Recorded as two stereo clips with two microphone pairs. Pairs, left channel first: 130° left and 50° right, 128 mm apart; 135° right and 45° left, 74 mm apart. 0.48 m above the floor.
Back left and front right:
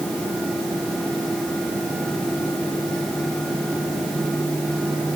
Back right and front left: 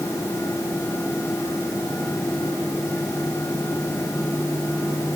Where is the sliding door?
No sliding door in this recording.